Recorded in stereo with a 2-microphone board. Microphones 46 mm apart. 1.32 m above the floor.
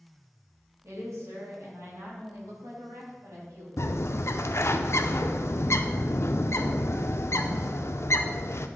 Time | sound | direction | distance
0.8 | a woman speaking | 85° right | 2.5 m
3.8 | a bird | 65° left (ahead or behind) | 0.5 m